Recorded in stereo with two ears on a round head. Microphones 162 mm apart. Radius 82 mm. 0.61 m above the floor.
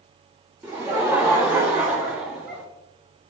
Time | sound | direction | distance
0.6 | laughter | 10° right (ahead or behind) | 0.9 m